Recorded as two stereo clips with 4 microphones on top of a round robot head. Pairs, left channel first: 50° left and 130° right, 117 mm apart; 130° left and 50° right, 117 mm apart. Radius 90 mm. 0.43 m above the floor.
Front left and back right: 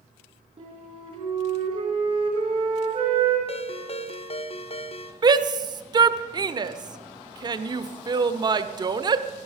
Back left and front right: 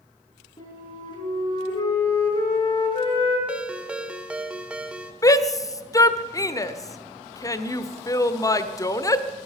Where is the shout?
175° right, 1.2 m.